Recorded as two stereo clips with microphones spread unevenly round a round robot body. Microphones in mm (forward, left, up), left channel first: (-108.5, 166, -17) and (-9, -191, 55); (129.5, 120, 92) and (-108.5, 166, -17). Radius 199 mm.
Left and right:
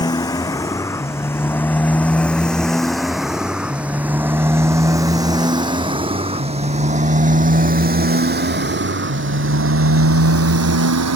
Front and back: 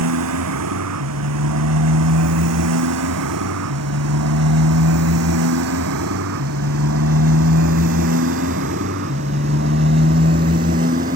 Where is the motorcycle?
175° right; by 11.2 s 120° right.